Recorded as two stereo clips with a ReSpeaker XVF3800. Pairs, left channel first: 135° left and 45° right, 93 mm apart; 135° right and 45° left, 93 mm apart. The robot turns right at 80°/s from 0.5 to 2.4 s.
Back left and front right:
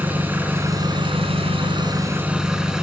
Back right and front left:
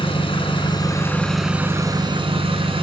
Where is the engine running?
115° right, 2.5 m; by 2.8 s 35° left, 2.5 m.